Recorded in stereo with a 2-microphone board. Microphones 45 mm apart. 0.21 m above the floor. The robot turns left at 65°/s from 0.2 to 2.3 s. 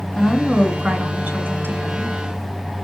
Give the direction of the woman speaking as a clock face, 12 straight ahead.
12 o'clock.